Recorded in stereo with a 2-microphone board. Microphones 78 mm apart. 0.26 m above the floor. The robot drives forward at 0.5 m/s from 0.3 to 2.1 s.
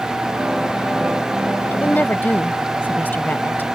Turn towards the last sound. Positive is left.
turn(degrees=25)  # may be behind; listen again after turning